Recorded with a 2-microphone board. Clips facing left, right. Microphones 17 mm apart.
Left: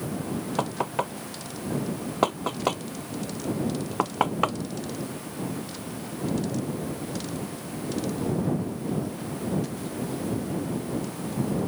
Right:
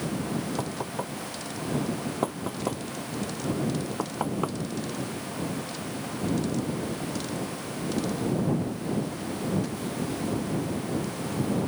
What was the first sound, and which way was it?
Knocking, 45° left (ahead or behind).